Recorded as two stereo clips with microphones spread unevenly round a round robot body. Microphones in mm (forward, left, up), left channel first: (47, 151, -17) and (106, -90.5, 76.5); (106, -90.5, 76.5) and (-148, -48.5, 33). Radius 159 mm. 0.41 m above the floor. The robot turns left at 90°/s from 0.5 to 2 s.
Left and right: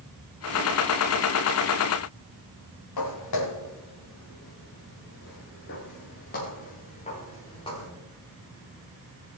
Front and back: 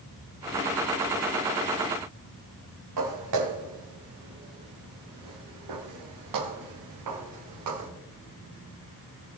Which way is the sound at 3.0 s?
135° left.